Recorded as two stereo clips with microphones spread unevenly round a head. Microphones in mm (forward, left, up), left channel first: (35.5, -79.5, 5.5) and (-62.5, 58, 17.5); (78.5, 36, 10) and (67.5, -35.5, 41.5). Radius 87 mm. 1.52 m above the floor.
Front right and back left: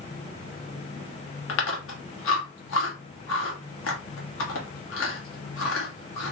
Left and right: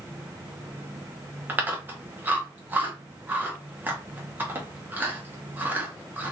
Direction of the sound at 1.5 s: 35° right.